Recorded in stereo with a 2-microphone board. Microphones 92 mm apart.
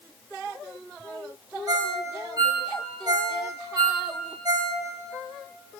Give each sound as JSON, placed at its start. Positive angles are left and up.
{"t": 1.7, "sound": "a ringtone", "side_deg": -50, "distance_m": 0.8}